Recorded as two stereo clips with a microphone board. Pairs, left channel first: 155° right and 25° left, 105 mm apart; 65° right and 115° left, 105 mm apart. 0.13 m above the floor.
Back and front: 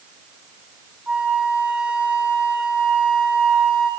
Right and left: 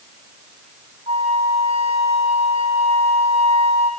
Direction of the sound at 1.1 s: 105° left.